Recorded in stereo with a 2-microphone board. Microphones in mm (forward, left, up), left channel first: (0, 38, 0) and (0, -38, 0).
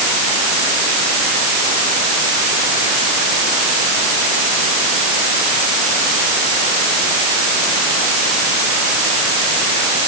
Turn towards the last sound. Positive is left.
No sound to turn to.